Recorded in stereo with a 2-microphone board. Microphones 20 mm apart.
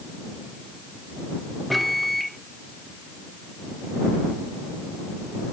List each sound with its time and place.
1.7 s a microwave: centre (ahead or behind)